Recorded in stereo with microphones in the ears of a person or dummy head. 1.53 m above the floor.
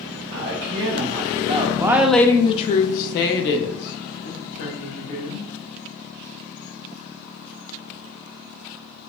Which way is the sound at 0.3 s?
65° right (ahead or behind).